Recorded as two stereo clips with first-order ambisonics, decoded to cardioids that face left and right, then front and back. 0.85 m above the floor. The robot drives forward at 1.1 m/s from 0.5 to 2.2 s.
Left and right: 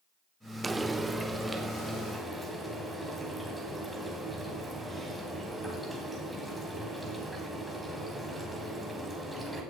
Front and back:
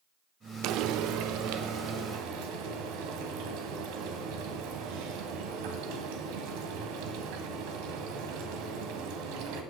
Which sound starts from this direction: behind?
Frying, at 0.6 s.